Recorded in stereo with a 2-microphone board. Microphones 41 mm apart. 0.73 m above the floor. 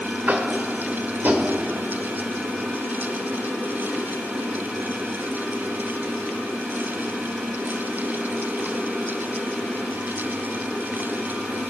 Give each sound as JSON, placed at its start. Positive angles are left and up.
{"t": 0.3, "sound": "tapping", "side_deg": -50, "distance_m": 1.8}